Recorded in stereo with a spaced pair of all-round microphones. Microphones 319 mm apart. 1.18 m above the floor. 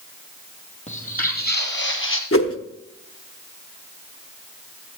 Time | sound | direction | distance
0.9 | footsteps | 20° left (ahead or behind) | 2.0 m
2.3 | a whoosh | 45° left (ahead or behind) | 0.9 m